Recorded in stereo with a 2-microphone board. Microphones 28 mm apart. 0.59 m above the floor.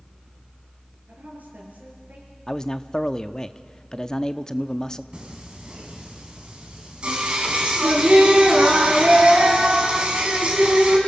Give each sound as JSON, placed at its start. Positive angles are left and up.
{"t": 1.1, "sound": "a woman speaking", "side_deg": -80, "distance_m": 8.0}
{"t": 2.5, "sound": "a man speaking", "side_deg": 25, "distance_m": 0.6}
{"t": 5.1, "sound": "singing", "side_deg": -40, "distance_m": 3.5}